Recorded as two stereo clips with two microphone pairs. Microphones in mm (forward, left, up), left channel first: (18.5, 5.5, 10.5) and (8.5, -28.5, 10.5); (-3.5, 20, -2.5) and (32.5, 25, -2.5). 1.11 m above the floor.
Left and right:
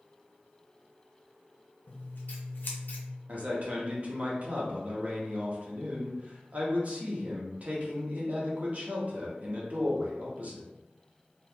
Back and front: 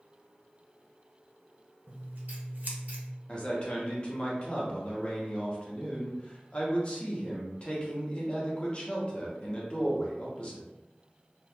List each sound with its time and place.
1.9 s scissors: 40° left, 0.7 m
3.3 s a man speaking: 130° right, 0.8 m